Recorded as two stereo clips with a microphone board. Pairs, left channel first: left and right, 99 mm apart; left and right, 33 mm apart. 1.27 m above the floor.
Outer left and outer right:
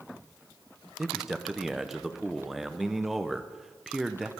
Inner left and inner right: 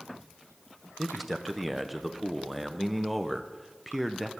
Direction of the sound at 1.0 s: Centre (ahead or behind).